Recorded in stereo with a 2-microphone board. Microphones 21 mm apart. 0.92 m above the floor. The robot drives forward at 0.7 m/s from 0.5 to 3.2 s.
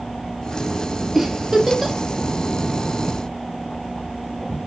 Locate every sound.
1.1 s a giggle: 5° right (ahead or behind), 1.8 m